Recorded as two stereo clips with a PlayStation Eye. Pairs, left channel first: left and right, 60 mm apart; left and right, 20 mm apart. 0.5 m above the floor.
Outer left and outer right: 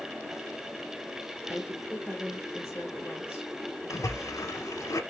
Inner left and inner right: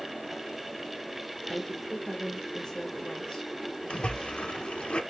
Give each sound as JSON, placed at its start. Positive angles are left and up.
{"t": 1.5, "sound": "a woman speaking", "side_deg": 40, "distance_m": 2.0}
{"t": 3.9, "sound": "a splash", "side_deg": 65, "distance_m": 0.6}